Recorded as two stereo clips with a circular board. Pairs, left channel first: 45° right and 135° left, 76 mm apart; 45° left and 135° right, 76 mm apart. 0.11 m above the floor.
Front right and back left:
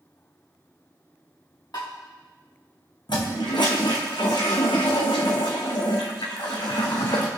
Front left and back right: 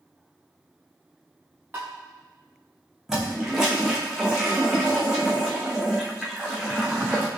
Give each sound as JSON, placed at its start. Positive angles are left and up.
{"t": 1.7, "sound": "tapping", "azimuth_deg": -75, "distance_m": 4.0}
{"t": 3.1, "sound": "a toilet flushing", "azimuth_deg": -55, "distance_m": 2.5}